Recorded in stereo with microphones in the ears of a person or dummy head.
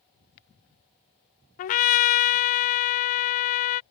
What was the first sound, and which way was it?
A trumpet, 40° left (ahead or behind).